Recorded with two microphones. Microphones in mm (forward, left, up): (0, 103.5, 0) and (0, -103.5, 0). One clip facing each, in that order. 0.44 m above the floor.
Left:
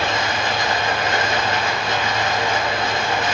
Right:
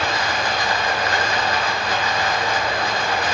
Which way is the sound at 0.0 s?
25° left (ahead or behind).